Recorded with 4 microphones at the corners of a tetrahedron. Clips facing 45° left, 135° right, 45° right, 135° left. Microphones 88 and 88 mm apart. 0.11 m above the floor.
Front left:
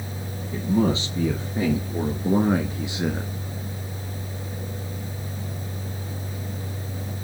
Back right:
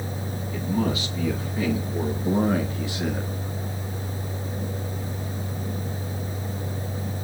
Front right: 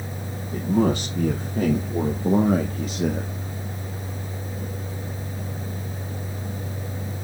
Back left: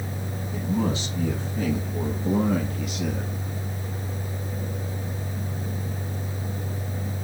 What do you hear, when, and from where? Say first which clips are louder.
0.5 s a man speaking: front left 4 dB, front right 5 dB; 10° right, 3.5 m; by 3.3 s 20° right, 2 m